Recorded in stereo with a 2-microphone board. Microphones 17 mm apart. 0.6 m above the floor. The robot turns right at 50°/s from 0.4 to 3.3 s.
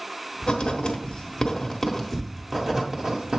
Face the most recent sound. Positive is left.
turn(degrees=-50)  # may be behind; listen again after turning